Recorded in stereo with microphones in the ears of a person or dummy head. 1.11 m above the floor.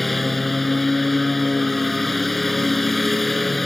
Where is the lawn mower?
Centre (ahead or behind).